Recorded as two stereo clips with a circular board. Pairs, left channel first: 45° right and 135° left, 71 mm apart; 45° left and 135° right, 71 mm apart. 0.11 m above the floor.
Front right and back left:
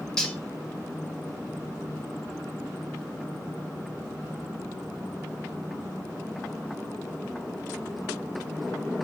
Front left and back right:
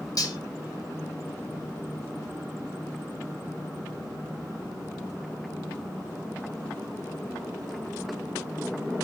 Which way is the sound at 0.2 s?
35° left.